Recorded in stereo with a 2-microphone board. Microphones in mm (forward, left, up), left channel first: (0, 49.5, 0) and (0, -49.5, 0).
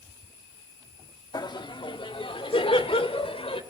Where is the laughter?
45° left (ahead or behind), 1.2 m; by 3.6 s 70° left (ahead or behind), 2.5 m.